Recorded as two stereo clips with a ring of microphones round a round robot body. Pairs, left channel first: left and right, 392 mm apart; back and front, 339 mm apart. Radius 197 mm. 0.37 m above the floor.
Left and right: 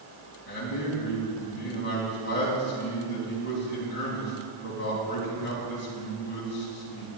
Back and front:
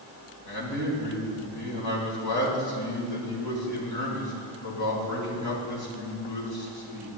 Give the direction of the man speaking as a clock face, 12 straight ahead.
7 o'clock.